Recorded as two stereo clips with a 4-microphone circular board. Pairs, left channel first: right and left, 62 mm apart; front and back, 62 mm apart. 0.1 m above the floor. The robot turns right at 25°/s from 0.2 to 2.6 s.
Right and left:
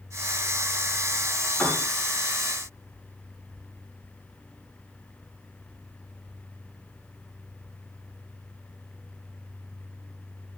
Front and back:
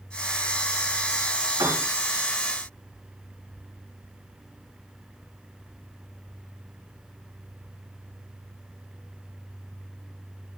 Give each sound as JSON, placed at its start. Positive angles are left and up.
{"t": 1.6, "sound": "a piano", "azimuth_deg": -165, "distance_m": 8.5}